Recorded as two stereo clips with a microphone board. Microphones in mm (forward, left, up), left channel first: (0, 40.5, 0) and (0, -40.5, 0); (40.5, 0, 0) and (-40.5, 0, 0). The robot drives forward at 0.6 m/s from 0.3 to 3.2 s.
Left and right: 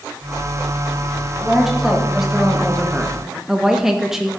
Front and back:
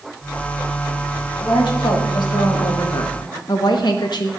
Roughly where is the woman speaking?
Ahead.